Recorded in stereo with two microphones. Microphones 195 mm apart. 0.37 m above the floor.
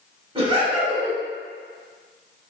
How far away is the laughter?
About 1.3 m.